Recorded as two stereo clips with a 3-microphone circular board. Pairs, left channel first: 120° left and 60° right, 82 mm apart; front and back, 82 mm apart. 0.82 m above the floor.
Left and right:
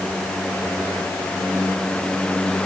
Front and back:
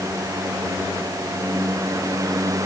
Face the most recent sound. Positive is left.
No sound to turn to.